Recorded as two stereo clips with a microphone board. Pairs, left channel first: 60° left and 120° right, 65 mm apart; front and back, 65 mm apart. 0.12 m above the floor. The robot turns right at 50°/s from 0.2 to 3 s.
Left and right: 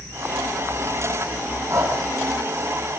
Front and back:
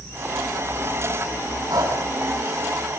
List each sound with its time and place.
1.7 s breathing: 165° right, 5.5 m; by 2.0 s 150° right, 5.5 m